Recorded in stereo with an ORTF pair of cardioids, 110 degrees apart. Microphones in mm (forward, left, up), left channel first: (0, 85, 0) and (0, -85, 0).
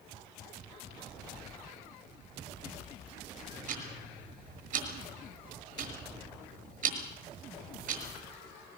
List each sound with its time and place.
3.7 s ticking: 55° right, 6.5 m